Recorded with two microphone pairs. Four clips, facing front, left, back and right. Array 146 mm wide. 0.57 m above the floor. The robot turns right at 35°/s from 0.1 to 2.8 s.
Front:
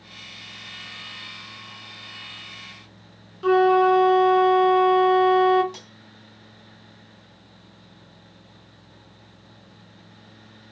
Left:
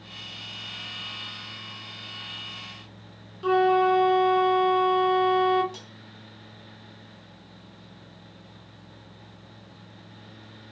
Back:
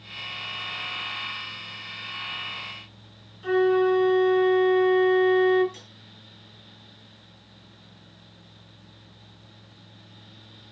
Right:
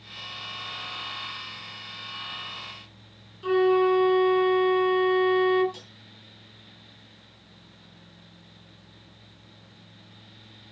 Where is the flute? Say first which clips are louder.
Even, front 4 dB; 15° left, 1.9 m.